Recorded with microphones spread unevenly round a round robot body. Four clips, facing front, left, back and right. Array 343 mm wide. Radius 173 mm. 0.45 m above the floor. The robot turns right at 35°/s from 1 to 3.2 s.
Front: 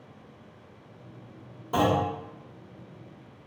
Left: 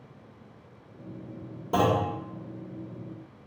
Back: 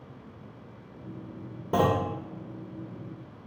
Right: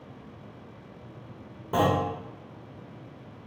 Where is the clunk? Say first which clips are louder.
Even, even; 165° left, 1.0 m; by 2.1 s straight behind, 1.0 m.